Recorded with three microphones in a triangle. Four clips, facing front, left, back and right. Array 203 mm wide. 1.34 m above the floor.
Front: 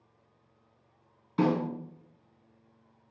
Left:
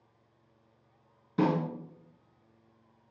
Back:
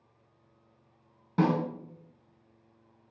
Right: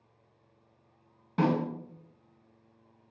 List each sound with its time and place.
1.4 s a snare drum: 160° right, 2 m